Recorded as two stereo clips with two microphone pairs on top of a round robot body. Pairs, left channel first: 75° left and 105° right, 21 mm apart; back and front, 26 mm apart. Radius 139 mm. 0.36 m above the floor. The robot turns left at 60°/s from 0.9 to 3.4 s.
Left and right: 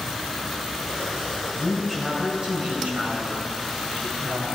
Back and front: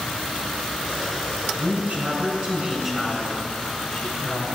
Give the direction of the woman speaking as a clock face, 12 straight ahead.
12 o'clock.